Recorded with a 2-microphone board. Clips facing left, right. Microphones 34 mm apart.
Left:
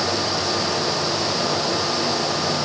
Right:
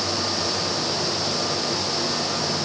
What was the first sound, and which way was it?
Only background noise.